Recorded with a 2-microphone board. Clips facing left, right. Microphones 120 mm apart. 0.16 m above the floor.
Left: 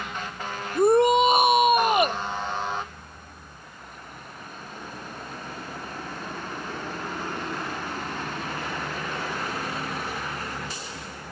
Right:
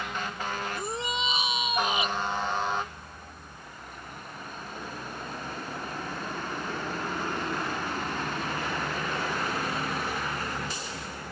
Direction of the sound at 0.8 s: 55° left (ahead or behind).